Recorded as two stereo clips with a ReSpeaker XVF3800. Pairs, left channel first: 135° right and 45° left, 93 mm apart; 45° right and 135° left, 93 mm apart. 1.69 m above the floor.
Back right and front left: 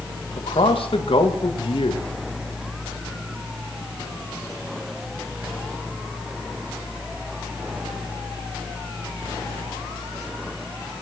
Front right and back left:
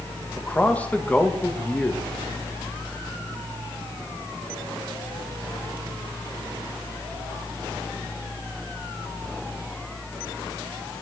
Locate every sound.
0.4 s a man speaking: 120° right, 2.5 m